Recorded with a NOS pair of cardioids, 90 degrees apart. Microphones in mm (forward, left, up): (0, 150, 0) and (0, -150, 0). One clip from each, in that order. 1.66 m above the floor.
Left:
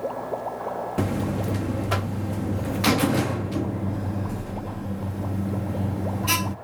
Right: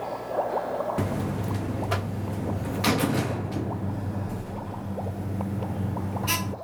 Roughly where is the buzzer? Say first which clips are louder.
Left 3 dB; ahead.